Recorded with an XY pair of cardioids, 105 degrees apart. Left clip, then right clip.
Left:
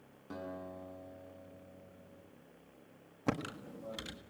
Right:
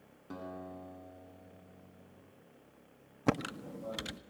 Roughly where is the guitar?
Ahead.